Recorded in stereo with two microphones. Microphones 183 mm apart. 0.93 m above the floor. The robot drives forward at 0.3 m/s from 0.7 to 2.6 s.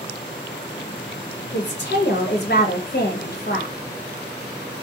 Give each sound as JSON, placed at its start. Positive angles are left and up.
{"t": 1.5, "sound": "a woman speaking", "side_deg": 75, "distance_m": 0.9}